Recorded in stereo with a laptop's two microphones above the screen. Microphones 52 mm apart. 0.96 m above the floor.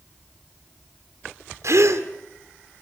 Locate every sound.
1.6 s a gasp: 70° right (ahead or behind), 1.6 m